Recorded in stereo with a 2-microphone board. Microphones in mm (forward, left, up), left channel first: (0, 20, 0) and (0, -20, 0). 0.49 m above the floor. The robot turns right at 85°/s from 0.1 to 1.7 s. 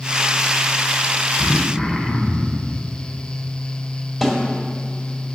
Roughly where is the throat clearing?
Left.